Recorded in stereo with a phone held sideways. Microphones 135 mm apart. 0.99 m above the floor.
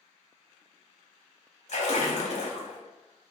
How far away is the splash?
About 0.7 m.